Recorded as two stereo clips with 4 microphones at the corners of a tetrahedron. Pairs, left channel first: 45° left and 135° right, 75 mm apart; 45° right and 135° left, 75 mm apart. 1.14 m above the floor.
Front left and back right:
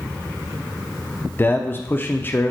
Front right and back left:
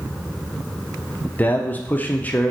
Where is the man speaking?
5° left, 0.8 m.